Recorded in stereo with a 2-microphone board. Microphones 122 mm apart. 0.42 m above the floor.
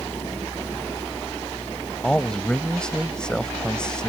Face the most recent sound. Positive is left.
turn(degrees=5)  # may be behind; listen again after turning